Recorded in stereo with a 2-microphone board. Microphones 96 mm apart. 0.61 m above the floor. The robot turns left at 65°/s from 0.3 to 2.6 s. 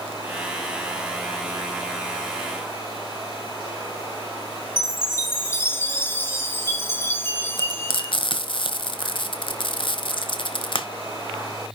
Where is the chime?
25° left (ahead or behind), 2.5 m.